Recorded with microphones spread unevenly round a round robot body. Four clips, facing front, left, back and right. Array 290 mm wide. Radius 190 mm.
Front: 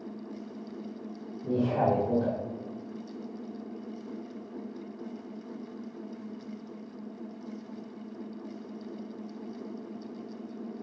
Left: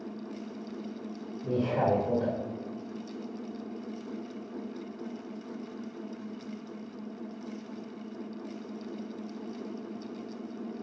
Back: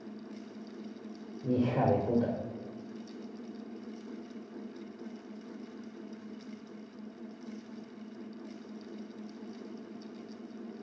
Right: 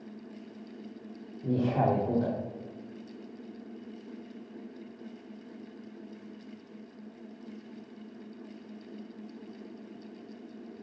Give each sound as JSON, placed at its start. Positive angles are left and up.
{"t": 1.4, "sound": "a man speaking", "azimuth_deg": -130, "distance_m": 1.3}